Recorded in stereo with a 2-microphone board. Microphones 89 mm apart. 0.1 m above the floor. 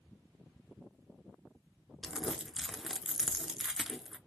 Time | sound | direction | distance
2.0 | crumpling | 5° right (ahead or behind) | 0.7 m